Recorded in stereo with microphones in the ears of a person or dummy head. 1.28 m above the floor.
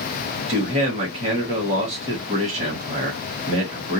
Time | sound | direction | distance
0.5 | a man speaking | 35° right (ahead or behind) | 1.5 m